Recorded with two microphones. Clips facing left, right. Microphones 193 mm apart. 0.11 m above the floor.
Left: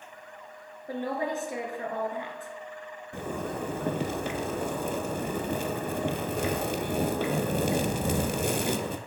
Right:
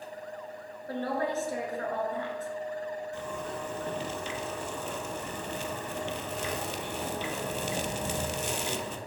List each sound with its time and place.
0.9 s a woman speaking: 15° left (ahead or behind), 1.5 m
3.1 s a zipper: 55° left (ahead or behind), 0.6 m